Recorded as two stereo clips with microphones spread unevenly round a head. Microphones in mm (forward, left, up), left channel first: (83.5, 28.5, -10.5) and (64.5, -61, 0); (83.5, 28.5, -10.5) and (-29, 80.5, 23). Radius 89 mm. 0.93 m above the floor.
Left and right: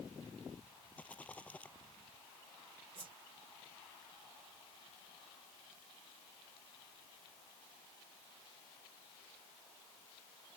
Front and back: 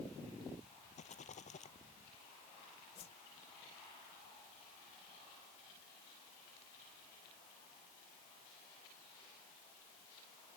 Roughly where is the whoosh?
Right.